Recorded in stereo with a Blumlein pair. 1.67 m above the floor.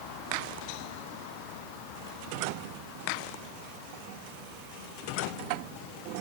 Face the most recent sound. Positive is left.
No sound to turn to.